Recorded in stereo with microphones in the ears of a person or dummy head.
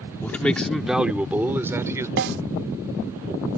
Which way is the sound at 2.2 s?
65° right (ahead or behind).